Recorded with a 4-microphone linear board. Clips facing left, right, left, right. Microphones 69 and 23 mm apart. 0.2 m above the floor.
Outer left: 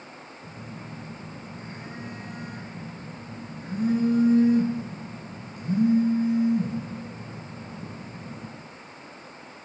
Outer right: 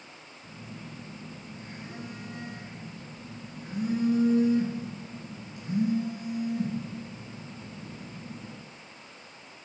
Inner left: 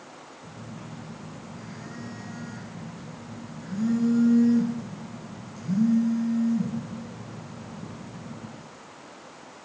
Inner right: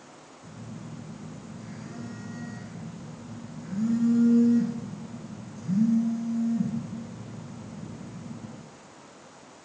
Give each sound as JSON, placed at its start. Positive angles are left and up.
{"t": 0.4, "sound": "a phone buzzing", "side_deg": 45, "distance_m": 1.8}